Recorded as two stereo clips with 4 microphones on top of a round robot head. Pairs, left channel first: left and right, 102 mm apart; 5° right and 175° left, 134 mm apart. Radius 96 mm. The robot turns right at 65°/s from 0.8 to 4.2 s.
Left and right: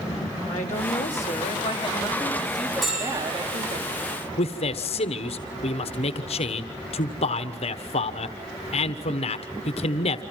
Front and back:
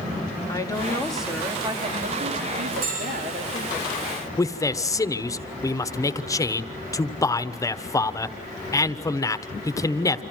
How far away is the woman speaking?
About 3 m.